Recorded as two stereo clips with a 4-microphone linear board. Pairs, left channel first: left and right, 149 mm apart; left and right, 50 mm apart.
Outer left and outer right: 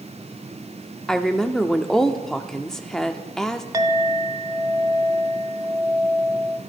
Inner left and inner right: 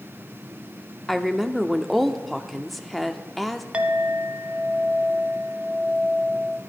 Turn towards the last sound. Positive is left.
turn(degrees=-25)  # may be behind; listen again after turning